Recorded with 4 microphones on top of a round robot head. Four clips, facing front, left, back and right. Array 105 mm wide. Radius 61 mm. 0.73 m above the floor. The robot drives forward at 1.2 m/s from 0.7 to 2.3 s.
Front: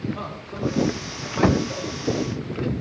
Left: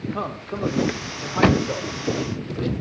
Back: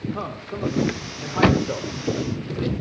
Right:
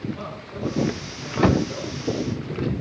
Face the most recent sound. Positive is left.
turn(degrees=140)